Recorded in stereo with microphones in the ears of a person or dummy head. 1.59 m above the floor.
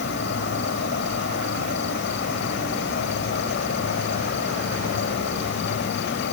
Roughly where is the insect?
Left.